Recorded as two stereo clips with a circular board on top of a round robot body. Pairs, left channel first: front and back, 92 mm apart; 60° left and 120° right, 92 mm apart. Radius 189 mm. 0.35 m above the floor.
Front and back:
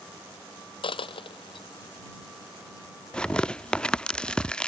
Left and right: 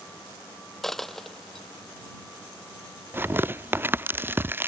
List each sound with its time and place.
0.8 s a dropped coin: 25° right
3.1 s tearing paper: 75° right